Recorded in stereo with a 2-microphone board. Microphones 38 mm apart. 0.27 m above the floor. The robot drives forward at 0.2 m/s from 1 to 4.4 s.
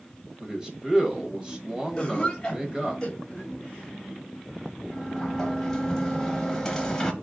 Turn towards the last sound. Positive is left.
turn(degrees=15)  # may be behind; listen again after turning